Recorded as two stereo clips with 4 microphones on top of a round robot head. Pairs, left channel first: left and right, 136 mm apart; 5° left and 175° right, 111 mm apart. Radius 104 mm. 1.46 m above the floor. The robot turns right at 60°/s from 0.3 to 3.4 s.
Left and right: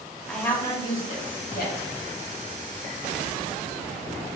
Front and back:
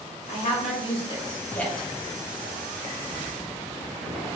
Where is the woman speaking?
5° left, 1.3 m; by 1.9 s 100° left, 1.3 m.